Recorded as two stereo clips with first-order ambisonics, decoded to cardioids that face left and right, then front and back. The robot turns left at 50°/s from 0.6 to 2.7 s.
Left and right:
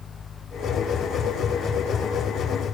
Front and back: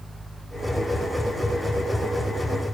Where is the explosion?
I don't hear an explosion.